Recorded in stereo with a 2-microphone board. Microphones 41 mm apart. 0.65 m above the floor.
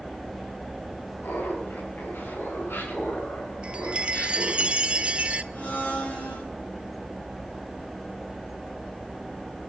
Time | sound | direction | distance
1.2 | laughter | 80° left | 6.5 m
3.6 | a chime | 30° right (ahead or behind) | 0.6 m
5.5 | a blender | 55° left (ahead or behind) | 9 m